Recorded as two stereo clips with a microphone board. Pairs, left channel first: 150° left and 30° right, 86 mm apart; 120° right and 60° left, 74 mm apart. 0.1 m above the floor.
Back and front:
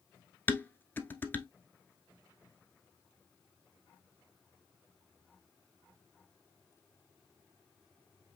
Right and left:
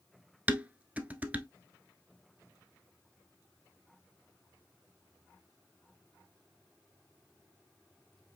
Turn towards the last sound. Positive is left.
turn(degrees=110)